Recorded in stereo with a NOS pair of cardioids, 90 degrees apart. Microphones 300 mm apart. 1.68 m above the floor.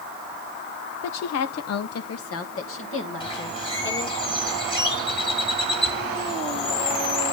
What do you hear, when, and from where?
1.0 s a woman speaking: 65° left, 1.0 m; by 4.2 s 40° left, 3 m
3.2 s a bird: 15° left, 3 m